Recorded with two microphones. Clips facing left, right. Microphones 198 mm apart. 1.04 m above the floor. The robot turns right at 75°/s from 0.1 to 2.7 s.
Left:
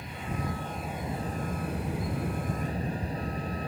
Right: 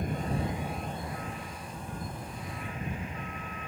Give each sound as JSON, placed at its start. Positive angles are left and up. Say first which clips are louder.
{"t": 0.0, "sound": "a vehicle", "louder": "right 4 dB", "azimuth_deg": -50}